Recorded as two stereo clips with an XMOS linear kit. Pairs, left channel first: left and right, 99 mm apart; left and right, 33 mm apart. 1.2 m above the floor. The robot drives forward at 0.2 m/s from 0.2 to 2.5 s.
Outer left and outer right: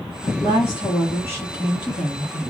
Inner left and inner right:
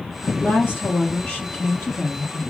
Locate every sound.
0.2 s a woman speaking: 55° left (ahead or behind), 1.4 m; by 2.4 s 45° left (ahead or behind), 1.6 m